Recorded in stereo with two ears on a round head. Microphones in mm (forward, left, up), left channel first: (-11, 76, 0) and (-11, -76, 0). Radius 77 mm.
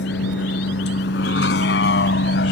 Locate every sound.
0.0 s a vehicle: 70° left (ahead or behind)